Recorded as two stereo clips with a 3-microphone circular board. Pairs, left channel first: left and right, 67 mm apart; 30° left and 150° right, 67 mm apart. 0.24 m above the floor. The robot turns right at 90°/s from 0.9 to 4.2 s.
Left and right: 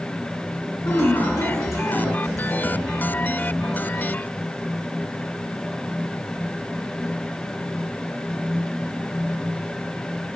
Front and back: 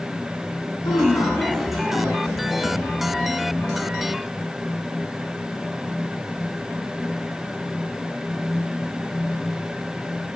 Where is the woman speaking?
45° left, 3.5 m; by 2.9 s 135° right, 3.5 m.